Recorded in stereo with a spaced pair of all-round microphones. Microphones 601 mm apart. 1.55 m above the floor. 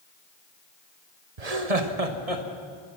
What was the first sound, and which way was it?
Laughter, 85° right.